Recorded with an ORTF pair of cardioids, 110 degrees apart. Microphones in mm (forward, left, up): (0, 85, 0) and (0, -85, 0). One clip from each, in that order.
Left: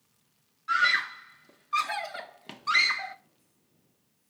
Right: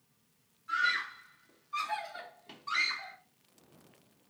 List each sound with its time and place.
0.7 s a scream: 55° left, 0.7 m